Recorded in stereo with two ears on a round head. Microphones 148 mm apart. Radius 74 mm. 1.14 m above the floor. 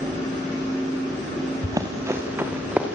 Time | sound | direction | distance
1.6 | running footsteps | 25° right (ahead or behind) | 3.5 m